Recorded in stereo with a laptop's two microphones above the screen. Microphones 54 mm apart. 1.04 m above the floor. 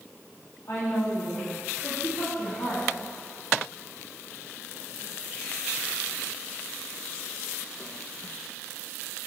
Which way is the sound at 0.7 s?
60° left (ahead or behind).